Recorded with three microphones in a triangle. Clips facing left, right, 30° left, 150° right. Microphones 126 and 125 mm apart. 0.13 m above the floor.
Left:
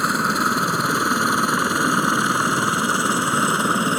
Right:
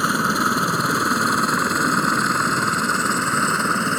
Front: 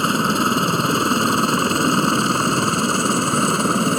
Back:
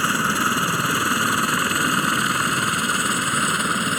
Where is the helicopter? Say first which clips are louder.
Even, front 4 dB; 5° right; by 4.0 s 20° left.